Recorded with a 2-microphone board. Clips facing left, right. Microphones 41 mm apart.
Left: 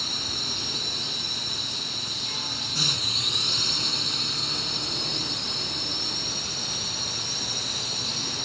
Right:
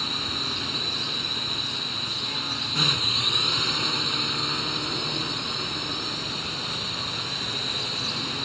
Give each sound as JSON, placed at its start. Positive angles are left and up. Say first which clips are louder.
{"t": 0.0, "sound": "a drone", "louder": "right 2 dB", "side_deg": -25}